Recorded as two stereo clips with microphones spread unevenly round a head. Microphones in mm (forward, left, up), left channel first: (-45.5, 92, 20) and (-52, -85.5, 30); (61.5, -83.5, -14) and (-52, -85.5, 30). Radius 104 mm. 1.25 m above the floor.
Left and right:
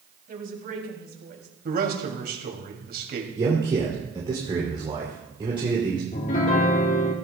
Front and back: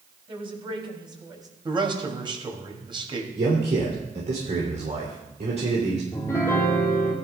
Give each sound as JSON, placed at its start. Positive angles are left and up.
{"t": 0.3, "sound": "a woman speaking", "azimuth_deg": -135, "distance_m": 3.0}
{"t": 1.6, "sound": "a man speaking", "azimuth_deg": -125, "distance_m": 2.5}
{"t": 3.4, "sound": "a man speaking", "azimuth_deg": -155, "distance_m": 3.0}
{"t": 6.1, "sound": "a piano", "azimuth_deg": 95, "distance_m": 0.9}